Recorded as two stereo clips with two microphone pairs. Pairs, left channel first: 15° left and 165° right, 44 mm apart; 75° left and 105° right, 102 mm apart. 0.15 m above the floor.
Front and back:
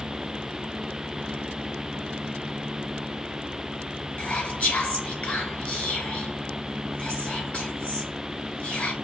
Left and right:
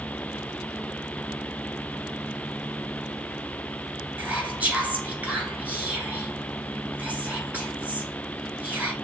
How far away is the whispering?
About 2 m.